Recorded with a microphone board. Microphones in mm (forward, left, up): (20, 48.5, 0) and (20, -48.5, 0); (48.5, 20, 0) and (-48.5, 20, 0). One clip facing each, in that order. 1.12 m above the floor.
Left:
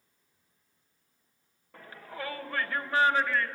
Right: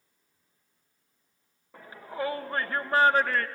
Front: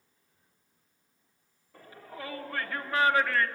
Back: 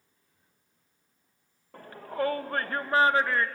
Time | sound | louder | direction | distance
1.7 | a shout | right 6 dB, back 12 dB | 165° right | 1.6 m